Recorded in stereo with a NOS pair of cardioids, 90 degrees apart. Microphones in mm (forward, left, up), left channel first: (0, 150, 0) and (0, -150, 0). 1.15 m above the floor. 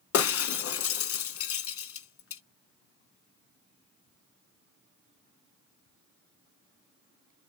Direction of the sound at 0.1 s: 50° left.